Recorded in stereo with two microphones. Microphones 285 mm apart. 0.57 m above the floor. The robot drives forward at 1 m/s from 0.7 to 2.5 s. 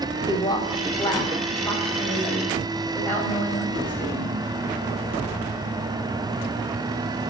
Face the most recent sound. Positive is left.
turn(degrees=5)  # may be behind; listen again after turning